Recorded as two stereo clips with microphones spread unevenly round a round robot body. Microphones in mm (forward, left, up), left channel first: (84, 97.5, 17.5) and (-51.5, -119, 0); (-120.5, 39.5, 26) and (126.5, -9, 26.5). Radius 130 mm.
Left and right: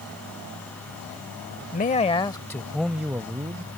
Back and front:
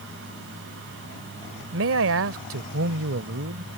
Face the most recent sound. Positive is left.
turn(degrees=-55)